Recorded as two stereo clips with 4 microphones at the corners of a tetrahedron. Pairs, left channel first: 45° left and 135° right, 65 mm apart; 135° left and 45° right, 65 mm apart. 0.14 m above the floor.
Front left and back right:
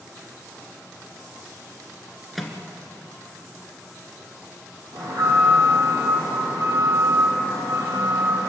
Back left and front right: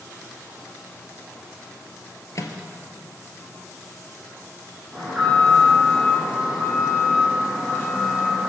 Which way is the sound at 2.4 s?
135° left.